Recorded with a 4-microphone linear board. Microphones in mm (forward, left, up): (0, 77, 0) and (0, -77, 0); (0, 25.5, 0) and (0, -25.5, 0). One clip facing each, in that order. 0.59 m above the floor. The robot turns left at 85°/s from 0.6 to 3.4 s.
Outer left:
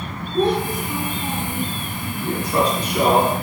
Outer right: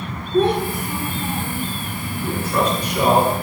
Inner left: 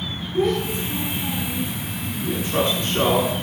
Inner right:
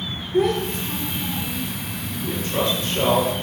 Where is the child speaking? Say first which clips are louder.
Outer right 2 dB, inner right 1 dB; 105° right, 5 m; by 1.7 s 160° left, 5 m.